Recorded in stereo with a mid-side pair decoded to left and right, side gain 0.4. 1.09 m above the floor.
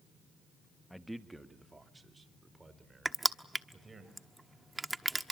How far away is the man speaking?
About 1.4 m.